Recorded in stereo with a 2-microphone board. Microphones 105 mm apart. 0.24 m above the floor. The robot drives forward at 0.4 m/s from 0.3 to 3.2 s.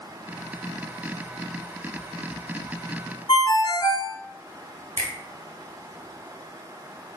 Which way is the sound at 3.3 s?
45° left (ahead or behind).